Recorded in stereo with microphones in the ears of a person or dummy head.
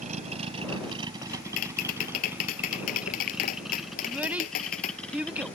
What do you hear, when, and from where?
0.0 s a vehicle: 35° right (ahead or behind); by 5.5 s 5° left (ahead or behind)
1.3 s tapping: 45° left (ahead or behind)
4.0 s a child speaking: 5° right (ahead or behind)